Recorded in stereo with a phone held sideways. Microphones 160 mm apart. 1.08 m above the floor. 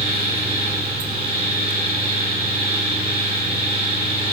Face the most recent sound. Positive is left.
turn(degrees=-40)  # may be behind; listen again after turning